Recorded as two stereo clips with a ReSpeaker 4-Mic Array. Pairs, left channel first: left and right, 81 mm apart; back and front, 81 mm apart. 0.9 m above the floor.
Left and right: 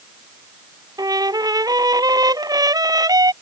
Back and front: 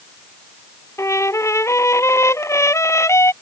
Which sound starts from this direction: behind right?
A trumpet, at 1.0 s.